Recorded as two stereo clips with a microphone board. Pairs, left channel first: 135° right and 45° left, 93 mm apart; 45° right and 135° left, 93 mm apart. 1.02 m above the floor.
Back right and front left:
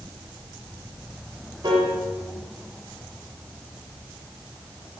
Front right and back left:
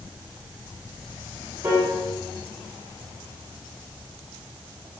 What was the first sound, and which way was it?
A piano, 85° left.